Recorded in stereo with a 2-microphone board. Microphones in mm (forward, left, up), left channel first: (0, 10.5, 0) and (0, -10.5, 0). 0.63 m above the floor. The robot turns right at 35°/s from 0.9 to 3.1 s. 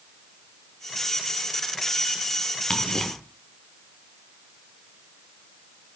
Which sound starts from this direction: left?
Ticking, at 2.7 s.